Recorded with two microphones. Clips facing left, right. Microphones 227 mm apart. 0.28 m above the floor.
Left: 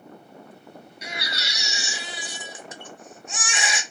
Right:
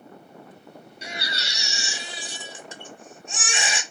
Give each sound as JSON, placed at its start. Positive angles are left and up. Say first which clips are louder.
{"t": 1.0, "sound": "a baby crying", "louder": "even", "side_deg": -30, "distance_m": 0.9}